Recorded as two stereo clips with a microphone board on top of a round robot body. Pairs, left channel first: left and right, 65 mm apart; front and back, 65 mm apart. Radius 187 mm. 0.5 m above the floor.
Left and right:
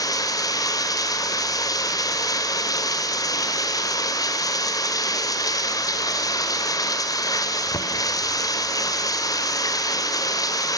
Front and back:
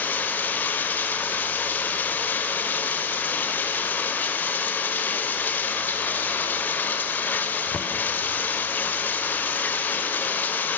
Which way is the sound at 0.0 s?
60° left.